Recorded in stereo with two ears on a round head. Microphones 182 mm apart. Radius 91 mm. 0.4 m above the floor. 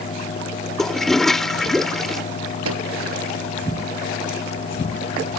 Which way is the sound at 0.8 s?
Centre (ahead or behind).